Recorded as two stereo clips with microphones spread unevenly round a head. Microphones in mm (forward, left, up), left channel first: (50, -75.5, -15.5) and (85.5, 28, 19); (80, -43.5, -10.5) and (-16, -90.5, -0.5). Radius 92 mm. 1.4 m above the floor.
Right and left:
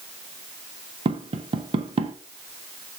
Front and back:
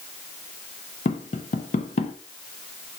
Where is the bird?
No bird in this recording.